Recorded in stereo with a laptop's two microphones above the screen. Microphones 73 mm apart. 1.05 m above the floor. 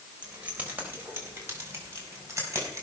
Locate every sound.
0.2 s keys jangling: 20° right (ahead or behind), 3.5 m; by 2.8 s 40° right (ahead or behind), 6.5 m